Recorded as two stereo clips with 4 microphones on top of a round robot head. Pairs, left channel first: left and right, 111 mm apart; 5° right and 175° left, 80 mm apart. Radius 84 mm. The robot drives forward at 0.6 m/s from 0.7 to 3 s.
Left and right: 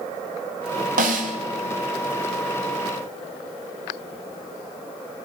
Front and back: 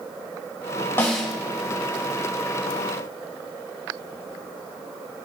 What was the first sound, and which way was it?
A snare drum, 75° right.